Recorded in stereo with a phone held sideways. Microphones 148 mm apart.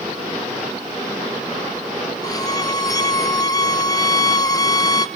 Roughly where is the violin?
Left.